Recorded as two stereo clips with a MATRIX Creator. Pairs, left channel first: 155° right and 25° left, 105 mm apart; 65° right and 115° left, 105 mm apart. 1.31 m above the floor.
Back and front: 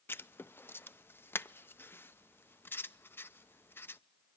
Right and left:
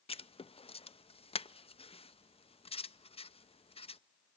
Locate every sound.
0.1 s writing: 90° right, 0.6 m